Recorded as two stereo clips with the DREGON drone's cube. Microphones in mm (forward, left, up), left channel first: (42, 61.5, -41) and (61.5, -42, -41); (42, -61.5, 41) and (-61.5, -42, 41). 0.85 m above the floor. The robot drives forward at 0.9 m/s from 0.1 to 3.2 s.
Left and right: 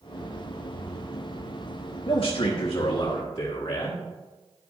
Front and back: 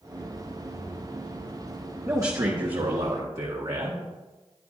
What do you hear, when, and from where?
2.1 s a man speaking: 110° left, 1.1 m; by 4.0 s 145° left, 1.7 m